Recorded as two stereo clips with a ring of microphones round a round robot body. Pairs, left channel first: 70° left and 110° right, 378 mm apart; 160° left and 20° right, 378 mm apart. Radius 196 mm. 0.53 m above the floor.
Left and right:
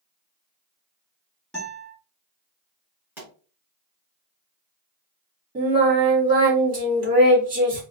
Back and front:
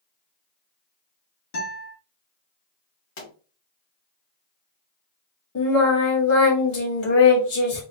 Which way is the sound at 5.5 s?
175° right.